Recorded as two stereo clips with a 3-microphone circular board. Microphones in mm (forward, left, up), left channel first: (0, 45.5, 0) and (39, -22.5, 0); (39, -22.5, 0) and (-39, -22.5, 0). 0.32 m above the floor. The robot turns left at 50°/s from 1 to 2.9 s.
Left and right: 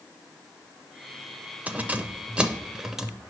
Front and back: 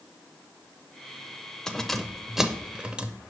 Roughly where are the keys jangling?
Right.